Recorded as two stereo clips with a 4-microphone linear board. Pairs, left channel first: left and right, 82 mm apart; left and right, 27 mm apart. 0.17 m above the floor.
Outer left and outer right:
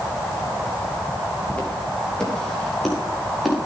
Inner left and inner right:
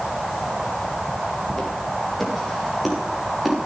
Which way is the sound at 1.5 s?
15° left (ahead or behind).